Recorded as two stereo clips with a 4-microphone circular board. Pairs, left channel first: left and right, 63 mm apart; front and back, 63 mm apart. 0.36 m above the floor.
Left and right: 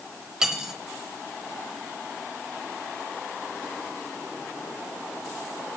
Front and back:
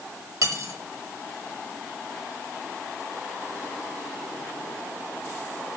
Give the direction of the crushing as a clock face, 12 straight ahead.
I don't hear crushing.